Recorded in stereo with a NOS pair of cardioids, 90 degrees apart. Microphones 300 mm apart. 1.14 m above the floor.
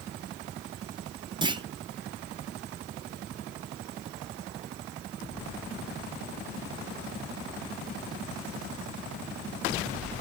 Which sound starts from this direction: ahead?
A clunk, at 1.4 s.